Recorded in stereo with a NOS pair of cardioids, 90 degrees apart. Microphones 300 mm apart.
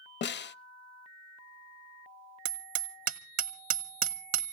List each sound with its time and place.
0.2 s a snare drum: 35° left, 0.7 m
2.5 s hammering: 65° right, 1.3 m